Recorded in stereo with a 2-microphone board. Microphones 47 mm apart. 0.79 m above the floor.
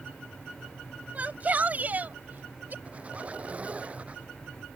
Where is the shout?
35° right (ahead or behind); by 2.8 s 40° right (ahead or behind).